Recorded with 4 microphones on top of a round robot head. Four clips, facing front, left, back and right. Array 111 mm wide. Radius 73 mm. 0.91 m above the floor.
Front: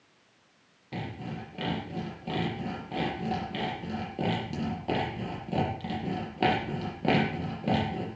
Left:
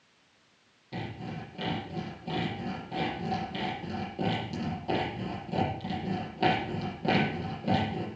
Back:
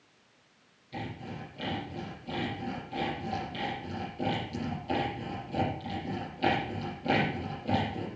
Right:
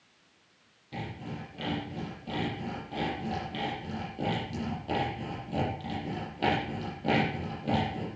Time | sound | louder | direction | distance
0.9 | sawing | left 1 dB, front 2 dB | 10° left | 7.5 m